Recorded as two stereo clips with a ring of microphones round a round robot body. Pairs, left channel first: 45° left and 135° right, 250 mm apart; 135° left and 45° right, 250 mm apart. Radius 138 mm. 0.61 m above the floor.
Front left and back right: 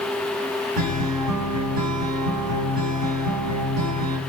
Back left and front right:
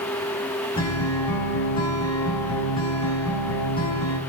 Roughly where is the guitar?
Behind right.